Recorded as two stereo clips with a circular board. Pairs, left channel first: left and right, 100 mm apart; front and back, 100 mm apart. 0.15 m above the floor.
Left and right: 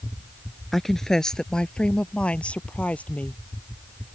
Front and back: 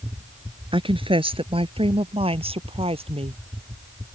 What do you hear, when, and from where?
0.7 s a woman speaking: straight behind; by 3.4 s 165° left